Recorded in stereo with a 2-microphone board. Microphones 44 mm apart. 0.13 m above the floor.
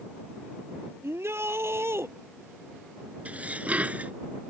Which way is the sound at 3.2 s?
30° right (ahead or behind).